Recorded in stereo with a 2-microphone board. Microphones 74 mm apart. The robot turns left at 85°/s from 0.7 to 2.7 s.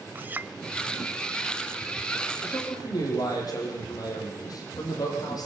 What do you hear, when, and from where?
0.1 s a clink: 25° right (ahead or behind), 0.6 m
2.4 s a man speaking: 35° left (ahead or behind), 8.5 m; by 5.5 s 60° left (ahead or behind), 8.5 m